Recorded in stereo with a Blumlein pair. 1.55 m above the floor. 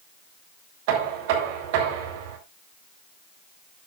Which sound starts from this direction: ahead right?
Knocking, at 0.9 s.